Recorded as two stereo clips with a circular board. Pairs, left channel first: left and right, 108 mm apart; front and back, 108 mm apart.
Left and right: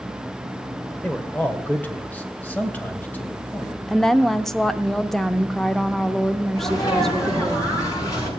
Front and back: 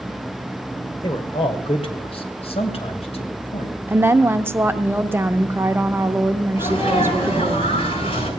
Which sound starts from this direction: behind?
A woman speaking, at 3.9 s.